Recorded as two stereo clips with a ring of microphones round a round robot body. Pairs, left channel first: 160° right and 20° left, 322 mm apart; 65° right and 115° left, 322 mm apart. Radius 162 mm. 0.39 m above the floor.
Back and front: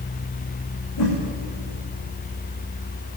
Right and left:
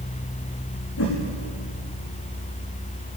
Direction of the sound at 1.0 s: 115° right.